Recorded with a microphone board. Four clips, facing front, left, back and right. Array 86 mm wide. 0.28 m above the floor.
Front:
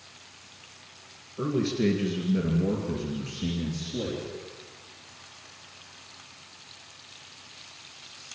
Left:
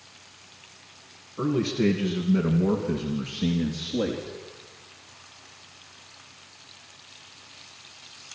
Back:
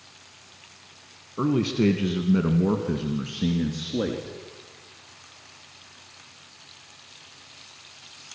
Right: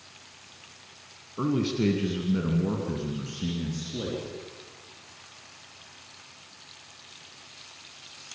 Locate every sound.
1.4 s a man speaking: 170° right, 2 m; by 4.4 s 150° left, 4 m